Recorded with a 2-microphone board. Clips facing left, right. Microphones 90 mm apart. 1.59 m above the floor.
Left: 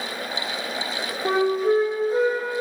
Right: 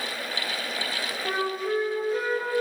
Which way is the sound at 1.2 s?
35° left (ahead or behind).